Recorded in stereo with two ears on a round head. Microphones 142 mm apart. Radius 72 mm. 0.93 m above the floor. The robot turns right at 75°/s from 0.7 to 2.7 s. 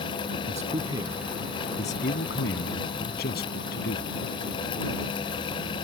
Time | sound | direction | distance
0.5 | a man speaking | 45° right | ?